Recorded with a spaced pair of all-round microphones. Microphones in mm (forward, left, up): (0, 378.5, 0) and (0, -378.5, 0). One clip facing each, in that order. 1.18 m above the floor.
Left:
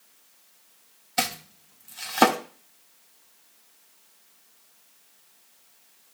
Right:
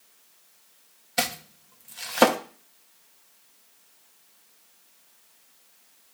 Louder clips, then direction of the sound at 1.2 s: Right 1 dB; 5° right (ahead or behind).